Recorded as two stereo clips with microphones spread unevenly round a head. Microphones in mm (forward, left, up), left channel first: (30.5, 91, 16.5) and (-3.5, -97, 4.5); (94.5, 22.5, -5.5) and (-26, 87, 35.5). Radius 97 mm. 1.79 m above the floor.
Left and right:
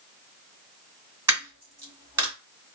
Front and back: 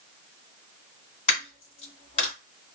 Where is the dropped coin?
40° right, 1.7 m.